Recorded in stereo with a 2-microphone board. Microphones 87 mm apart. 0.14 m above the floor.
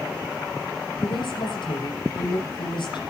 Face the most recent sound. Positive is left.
turn(degrees=75)  # may be behind; listen again after turning